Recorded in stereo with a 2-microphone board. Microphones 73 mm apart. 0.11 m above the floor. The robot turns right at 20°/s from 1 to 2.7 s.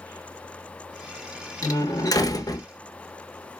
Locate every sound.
1.6 s a door slam: 50° left (ahead or behind), 1.2 m